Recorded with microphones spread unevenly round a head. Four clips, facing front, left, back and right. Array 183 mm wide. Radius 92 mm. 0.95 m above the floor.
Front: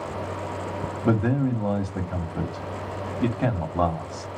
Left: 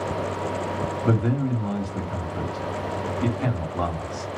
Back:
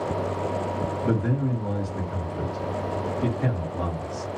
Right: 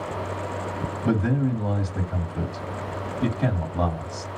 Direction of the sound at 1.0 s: 5° left.